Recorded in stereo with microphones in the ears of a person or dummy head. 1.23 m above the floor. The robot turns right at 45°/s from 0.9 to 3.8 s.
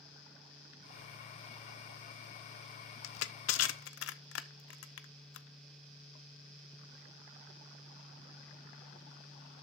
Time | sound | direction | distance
3.0 | crushing | 80° left | 0.6 m